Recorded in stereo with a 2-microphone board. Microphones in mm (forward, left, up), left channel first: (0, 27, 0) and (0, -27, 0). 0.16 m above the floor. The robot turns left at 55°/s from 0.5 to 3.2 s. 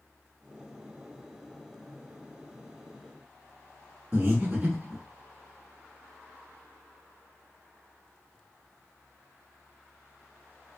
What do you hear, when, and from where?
4.1 s breathing: 30° right (ahead or behind), 1.1 m